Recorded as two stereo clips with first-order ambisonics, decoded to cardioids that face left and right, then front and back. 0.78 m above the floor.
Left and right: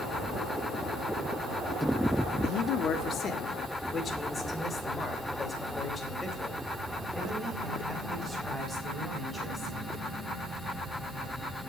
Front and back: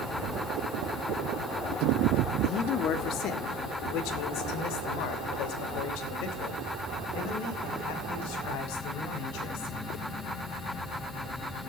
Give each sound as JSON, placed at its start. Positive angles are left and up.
{"t": 2.4, "sound": "a man speaking", "azimuth_deg": 50, "distance_m": 1.4}